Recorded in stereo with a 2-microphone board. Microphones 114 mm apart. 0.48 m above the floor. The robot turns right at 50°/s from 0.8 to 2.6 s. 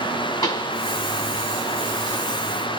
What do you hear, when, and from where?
0.4 s a pop: 35° left (ahead or behind), 1.1 m